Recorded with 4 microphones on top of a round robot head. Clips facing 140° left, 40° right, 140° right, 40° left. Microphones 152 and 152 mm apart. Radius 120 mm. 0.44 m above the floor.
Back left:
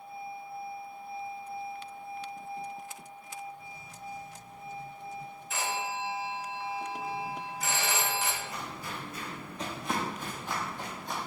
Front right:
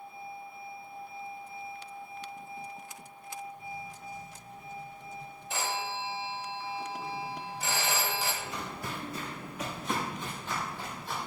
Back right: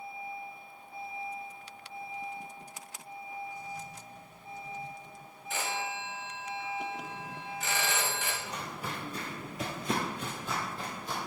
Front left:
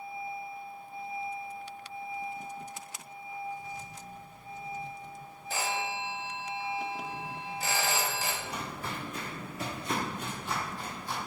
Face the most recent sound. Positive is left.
turn(degrees=-150)